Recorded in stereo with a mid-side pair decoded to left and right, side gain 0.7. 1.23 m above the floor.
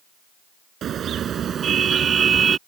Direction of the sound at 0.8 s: 40° right.